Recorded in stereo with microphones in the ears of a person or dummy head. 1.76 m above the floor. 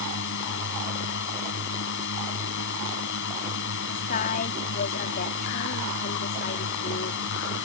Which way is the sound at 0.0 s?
65° left (ahead or behind).